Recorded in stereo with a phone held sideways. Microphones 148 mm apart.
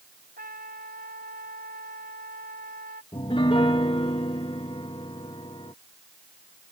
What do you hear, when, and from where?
0.4 s a trumpet: 85° right
3.1 s a piano: 35° left (ahead or behind)